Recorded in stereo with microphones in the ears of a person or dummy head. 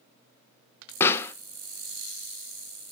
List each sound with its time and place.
1.0 s a pop: 15° left (ahead or behind), 0.7 m